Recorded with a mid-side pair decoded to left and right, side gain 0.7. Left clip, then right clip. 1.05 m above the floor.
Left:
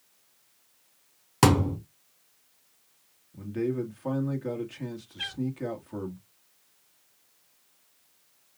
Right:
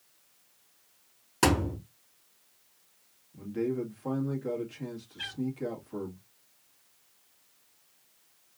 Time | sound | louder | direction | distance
1.4 | a thud | left 3 dB | 30° left | 3.5 m
3.3 | a man speaking | left 2 dB | 20° left | 1.7 m
5.2 | a cat meowing | left 4 dB | 15° left | 4.5 m